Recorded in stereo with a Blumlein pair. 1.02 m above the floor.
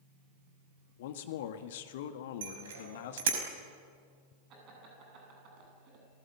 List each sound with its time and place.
1.0 s a man speaking: 55° left, 1.8 m
2.4 s a bicycle bell: 60° right, 5 m
4.5 s laughter: 35° right, 9 m